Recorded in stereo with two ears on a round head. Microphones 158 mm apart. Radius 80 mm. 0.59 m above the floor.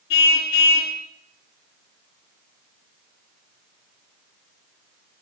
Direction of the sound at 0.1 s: 60° left (ahead or behind).